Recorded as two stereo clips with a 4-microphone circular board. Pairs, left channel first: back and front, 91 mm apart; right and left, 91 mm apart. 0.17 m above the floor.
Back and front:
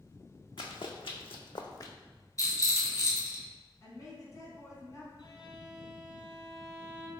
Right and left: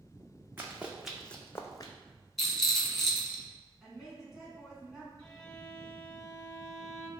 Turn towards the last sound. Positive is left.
turn(degrees=-170)